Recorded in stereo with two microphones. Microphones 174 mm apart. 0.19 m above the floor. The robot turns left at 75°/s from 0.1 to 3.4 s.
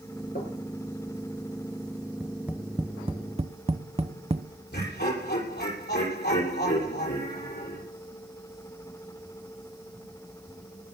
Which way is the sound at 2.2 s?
5° left (ahead or behind).